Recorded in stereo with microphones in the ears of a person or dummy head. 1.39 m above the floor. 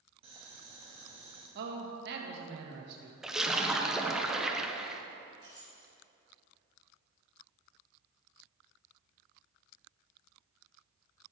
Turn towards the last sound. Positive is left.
turn(degrees=35)  # may be behind; listen again after turning